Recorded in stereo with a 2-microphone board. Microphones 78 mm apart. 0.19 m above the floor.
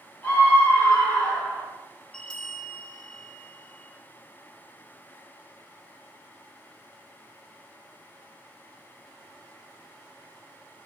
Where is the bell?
15° left (ahead or behind), 1.5 m.